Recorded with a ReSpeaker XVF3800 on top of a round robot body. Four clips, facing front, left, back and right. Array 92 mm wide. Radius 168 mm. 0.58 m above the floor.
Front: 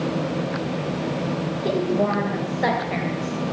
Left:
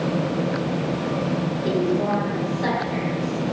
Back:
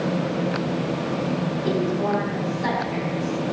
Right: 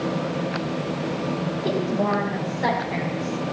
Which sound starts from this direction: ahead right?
A woman speaking, at 1.6 s.